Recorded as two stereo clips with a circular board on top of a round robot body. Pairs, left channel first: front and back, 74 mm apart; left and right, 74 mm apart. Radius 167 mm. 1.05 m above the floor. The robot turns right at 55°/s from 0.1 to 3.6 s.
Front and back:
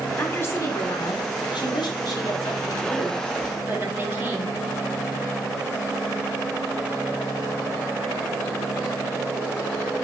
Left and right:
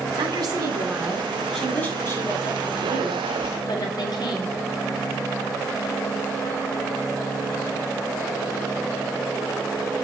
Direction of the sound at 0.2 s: 75° right.